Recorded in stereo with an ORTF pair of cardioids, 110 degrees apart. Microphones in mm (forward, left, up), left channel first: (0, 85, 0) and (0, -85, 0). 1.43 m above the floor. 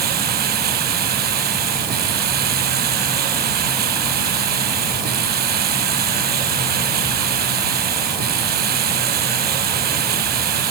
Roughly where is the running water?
Ahead right.